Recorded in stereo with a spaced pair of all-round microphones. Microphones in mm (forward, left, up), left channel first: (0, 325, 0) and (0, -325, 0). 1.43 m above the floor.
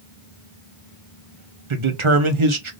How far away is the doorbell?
No doorbell in this recording.